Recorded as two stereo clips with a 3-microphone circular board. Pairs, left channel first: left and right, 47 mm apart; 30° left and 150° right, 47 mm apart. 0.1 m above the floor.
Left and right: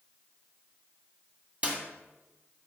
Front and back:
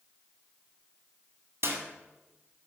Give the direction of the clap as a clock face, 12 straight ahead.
5 o'clock.